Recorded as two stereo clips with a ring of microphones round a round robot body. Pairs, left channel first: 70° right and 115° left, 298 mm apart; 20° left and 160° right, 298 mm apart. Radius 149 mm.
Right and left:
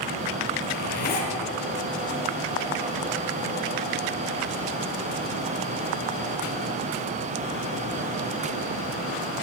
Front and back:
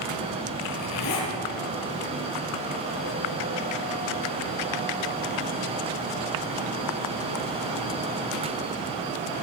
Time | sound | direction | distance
0.6 | a zipper | 5° right | 4.5 m